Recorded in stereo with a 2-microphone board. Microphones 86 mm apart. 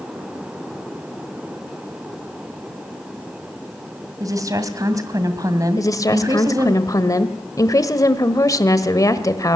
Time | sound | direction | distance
4.2 | a woman speaking | 40° right (ahead or behind) | 2 m
5.8 | a woman speaking | 40° left (ahead or behind) | 1.3 m